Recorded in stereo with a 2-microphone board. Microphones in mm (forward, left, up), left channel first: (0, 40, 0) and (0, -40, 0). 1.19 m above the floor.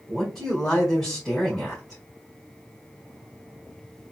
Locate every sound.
0.1 s a man speaking: centre (ahead or behind), 1.7 m